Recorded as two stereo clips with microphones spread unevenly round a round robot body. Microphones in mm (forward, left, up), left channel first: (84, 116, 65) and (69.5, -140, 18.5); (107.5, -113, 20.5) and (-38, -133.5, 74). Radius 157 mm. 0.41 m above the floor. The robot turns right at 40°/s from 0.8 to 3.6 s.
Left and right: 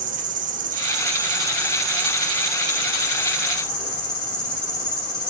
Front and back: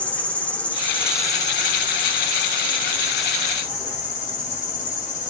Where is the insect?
55° right, 0.8 m; by 5.3 s 60° left, 0.8 m.